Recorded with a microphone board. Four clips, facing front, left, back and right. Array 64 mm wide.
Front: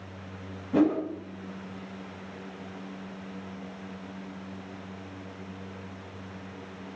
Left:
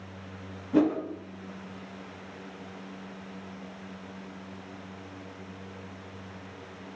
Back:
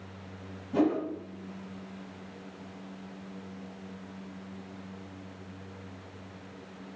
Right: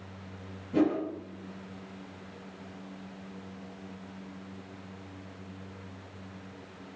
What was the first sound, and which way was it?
A whoosh, 30° left.